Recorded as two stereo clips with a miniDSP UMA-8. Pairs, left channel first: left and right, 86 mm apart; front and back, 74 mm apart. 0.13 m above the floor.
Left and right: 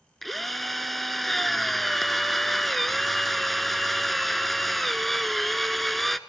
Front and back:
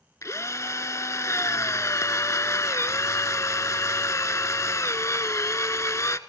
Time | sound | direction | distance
0.2 | a drill | straight ahead | 0.7 m